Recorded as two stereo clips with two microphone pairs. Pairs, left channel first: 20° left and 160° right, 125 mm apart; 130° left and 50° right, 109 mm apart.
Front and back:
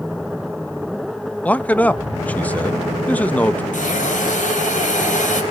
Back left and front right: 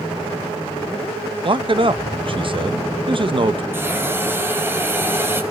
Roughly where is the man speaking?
Ahead right.